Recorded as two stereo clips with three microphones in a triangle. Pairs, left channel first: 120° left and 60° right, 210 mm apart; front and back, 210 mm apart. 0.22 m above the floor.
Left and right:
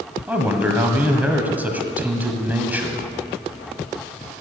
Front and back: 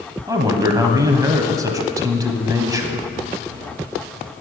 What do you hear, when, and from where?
0.3 s a man speaking: 130° right, 1.2 m